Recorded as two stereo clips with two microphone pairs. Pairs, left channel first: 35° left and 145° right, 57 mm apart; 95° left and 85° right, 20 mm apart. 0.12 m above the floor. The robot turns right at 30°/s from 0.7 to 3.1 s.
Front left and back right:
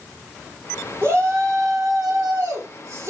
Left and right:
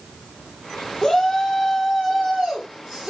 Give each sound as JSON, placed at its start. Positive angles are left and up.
{"t": 1.0, "sound": "a shout", "azimuth_deg": 175, "distance_m": 5.0}